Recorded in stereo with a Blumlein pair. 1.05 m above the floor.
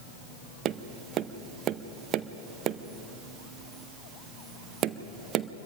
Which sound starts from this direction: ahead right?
Tapping, at 0.7 s.